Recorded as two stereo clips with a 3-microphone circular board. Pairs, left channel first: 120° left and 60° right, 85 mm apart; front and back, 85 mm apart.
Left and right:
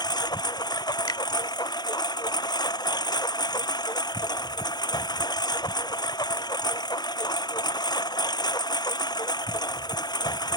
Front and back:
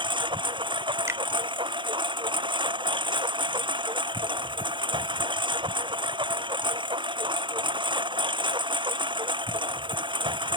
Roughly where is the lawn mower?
Behind left.